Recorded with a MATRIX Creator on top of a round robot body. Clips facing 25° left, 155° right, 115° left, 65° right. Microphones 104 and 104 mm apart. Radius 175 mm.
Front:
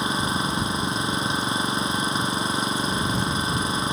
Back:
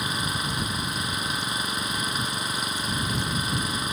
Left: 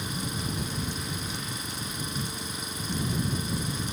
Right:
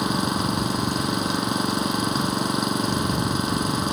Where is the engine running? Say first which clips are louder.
Front 5 dB, right 11 dB; 40° right.